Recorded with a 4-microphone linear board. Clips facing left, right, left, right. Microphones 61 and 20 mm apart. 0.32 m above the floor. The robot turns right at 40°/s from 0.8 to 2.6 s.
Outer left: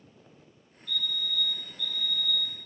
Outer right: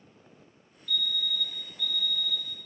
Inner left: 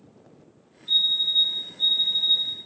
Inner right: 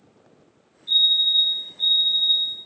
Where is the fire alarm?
45° right, 3.5 m; by 2.5 s 25° left, 3.5 m.